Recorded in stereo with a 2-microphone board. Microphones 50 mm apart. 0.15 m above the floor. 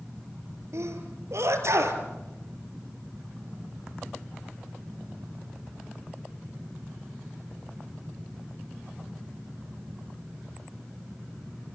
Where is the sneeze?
70° right (ahead or behind), 3.5 m.